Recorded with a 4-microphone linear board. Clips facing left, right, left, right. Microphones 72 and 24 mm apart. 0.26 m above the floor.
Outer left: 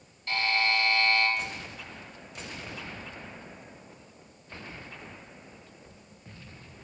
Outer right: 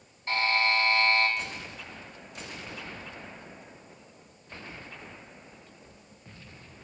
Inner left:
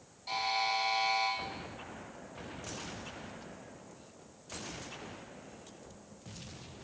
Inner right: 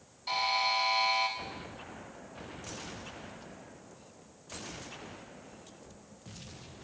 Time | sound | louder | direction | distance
0.3 | a buzzer | outer right 1 dB, inner right 3 dB | 25° right (ahead or behind) | 1.3 m